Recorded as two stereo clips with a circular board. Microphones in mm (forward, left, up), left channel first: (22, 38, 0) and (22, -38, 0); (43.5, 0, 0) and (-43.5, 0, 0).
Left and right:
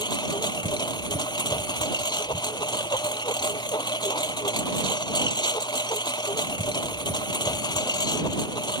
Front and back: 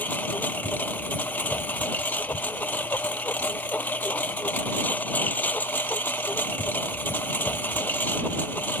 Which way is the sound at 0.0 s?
70° left.